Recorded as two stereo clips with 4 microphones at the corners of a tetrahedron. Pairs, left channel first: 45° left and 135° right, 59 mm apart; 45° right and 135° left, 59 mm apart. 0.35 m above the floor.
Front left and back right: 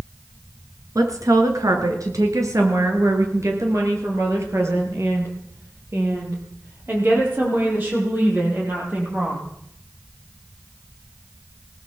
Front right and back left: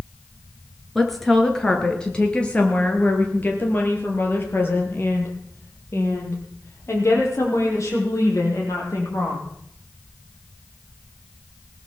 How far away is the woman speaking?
About 5 m.